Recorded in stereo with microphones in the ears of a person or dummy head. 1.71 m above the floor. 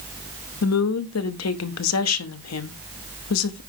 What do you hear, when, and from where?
0.6 s a woman speaking: 85° left, 1.0 m